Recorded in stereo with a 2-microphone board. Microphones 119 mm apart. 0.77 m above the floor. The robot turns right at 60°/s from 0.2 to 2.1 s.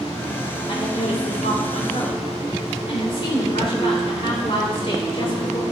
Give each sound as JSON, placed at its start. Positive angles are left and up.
{"t": 0.7, "sound": "a woman speaking", "azimuth_deg": 40, "distance_m": 3.0}